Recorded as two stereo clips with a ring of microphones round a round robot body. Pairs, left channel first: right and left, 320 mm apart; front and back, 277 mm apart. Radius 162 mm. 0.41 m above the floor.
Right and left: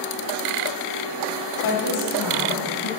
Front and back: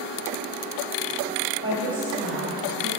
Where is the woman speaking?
140° right, 2.5 m; by 2.9 s 130° right, 3.5 m.